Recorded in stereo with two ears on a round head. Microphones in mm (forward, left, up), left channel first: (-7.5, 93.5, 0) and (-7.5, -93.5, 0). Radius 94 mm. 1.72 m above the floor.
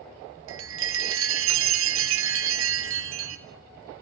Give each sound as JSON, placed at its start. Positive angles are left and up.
{"t": 0.5, "sound": "a chime", "side_deg": -70, "distance_m": 1.9}